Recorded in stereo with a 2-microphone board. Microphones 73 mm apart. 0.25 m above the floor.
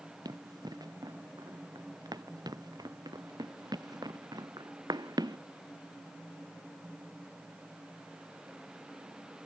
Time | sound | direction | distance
0.2 | running footsteps | 65° right (ahead or behind) | ?